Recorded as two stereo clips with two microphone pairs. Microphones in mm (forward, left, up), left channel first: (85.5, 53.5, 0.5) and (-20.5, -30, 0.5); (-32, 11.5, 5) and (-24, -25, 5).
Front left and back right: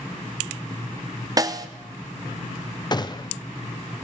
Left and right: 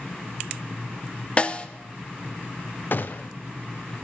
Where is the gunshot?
85° left, 0.6 m.